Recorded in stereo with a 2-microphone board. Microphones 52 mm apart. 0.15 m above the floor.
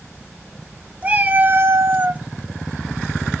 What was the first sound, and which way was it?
A cat meowing, 25° right (ahead or behind).